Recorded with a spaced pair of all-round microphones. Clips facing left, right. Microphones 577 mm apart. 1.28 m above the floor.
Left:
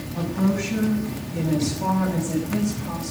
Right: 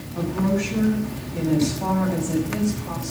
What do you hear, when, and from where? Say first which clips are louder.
0.1 s a woman speaking: right 1 dB; 25° left (ahead or behind), 9 m; by 3.1 s 40° left (ahead or behind), 5 m